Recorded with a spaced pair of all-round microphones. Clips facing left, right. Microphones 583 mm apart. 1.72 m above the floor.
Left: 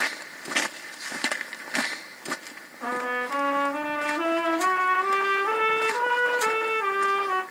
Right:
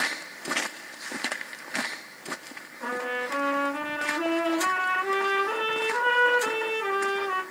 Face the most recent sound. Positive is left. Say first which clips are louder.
# left 1 dB
turn(degrees=10)  # may be behind; listen again after turning